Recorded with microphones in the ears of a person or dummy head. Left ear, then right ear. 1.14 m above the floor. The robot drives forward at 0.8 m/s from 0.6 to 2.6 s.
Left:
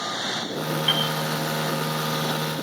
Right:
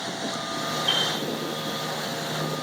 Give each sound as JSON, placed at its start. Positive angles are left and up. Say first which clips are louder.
{"t": 0.9, "sound": "a piano", "louder": "left 1 dB", "side_deg": 20, "distance_m": 4.0}